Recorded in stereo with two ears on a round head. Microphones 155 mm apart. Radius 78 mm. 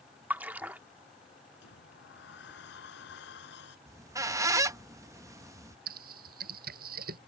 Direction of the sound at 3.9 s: 20° right (ahead or behind).